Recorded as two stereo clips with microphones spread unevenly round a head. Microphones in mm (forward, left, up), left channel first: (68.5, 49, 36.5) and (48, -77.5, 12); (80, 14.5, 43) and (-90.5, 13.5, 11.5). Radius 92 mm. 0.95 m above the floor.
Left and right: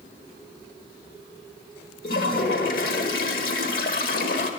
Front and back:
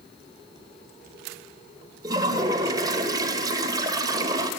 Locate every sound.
2.0 s a toilet flushing: 110° left, 1.6 m